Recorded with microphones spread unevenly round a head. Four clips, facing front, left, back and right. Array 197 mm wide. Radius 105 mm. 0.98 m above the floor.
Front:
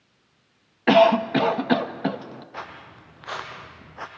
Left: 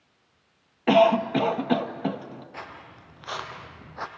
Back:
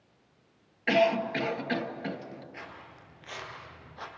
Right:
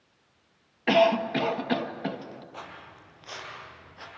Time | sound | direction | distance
0.9 | a cough | 20° left | 1.3 m
2.5 | footsteps | 10° left | 3.5 m